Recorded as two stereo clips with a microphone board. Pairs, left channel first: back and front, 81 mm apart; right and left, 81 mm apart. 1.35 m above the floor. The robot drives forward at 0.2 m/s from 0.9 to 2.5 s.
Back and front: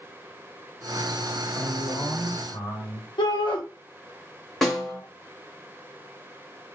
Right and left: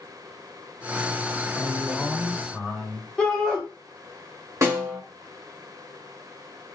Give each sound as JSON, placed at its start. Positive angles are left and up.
{"t": 1.6, "sound": "a man speaking", "azimuth_deg": -175, "distance_m": 1.0}
{"t": 3.2, "sound": "a shout", "azimuth_deg": -170, "distance_m": 0.6}
{"t": 4.6, "sound": "a snare drum", "azimuth_deg": 100, "distance_m": 1.1}